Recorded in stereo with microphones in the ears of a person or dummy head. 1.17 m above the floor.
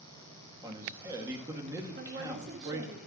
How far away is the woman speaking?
About 1.8 m.